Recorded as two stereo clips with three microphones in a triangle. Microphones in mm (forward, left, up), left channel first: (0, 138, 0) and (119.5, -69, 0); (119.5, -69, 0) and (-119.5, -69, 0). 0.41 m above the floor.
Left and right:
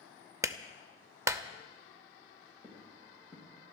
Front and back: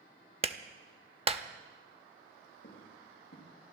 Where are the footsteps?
40° left, 5 m.